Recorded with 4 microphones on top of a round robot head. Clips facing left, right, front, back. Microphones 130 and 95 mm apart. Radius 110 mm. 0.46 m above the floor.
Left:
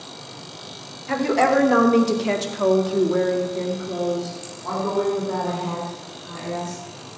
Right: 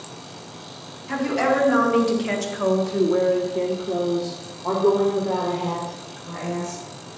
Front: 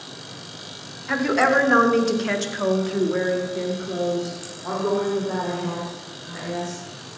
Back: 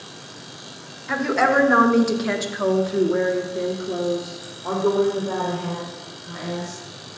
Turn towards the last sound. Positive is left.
turn(degrees=-105)